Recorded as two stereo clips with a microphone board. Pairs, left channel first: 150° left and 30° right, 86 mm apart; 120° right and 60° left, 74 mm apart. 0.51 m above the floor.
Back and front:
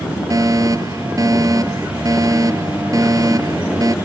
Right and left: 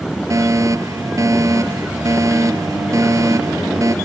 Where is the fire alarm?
15° left.